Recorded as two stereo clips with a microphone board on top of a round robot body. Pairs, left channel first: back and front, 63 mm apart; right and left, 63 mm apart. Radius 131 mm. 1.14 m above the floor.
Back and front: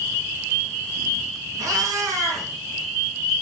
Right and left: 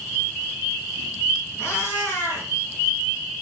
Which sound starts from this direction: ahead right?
A cat meowing, at 1.6 s.